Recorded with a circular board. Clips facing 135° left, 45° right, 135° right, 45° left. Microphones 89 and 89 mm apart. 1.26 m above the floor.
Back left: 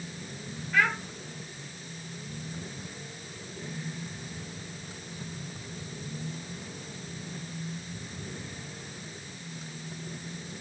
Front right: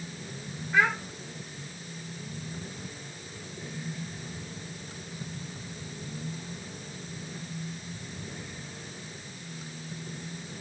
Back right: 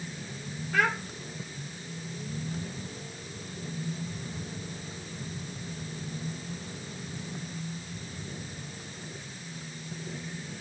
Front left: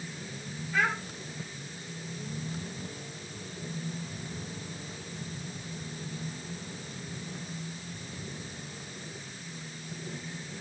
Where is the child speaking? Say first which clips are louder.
Front right 2 dB, back right 2 dB; 115° right, 2 m.